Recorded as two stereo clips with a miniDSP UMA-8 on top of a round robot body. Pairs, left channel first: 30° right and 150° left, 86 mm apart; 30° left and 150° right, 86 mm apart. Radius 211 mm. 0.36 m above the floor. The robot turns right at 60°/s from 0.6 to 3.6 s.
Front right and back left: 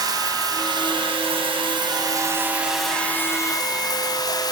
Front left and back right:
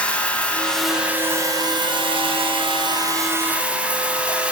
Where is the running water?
105° left, 2.0 m; by 4.5 s 75° right, 2.0 m.